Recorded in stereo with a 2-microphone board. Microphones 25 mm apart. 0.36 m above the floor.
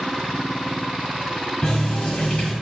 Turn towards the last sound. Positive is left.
turn(degrees=35)  # may be behind; listen again after turning